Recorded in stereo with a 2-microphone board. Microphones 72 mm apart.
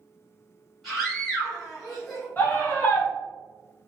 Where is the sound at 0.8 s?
Centre (ahead or behind), 1.2 m.